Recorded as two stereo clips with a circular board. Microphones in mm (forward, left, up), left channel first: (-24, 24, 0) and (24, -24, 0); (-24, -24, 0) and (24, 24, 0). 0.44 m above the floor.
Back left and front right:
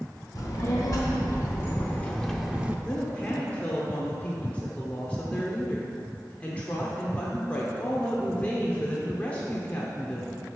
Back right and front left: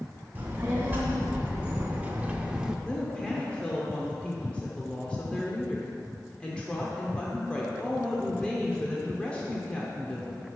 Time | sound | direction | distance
0.3 | a child speaking | 110° left | 1.3 m
2.9 | a woman speaking | 170° left | 0.9 m